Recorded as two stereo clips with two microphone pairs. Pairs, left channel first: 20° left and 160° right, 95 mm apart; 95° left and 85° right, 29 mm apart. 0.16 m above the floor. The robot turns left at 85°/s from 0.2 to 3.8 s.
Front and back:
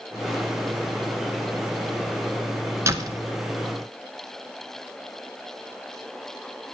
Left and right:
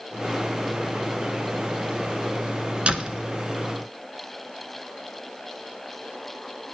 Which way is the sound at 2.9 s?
110° right.